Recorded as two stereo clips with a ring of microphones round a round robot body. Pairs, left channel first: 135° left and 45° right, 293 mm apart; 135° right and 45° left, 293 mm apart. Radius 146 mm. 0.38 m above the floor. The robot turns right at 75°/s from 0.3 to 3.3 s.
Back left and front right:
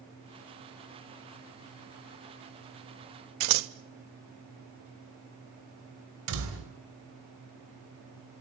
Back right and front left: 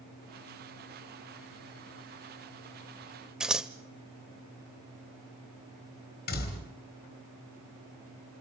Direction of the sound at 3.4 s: 45° right.